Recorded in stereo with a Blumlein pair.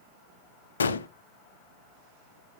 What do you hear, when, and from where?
0.8 s a gunshot: 70° left, 0.7 m